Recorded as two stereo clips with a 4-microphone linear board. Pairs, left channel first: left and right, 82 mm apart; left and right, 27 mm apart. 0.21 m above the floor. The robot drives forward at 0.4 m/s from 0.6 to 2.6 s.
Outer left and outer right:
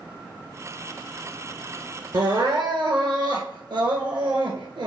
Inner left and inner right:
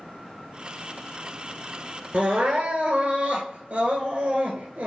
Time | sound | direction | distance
2.1 | crying | 75° right (ahead or behind) | 1.0 m